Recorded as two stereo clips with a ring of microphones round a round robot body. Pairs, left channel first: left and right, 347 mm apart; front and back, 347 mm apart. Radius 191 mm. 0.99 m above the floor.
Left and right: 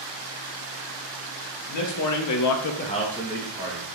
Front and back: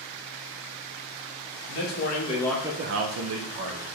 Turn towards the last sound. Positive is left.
turn(degrees=-160)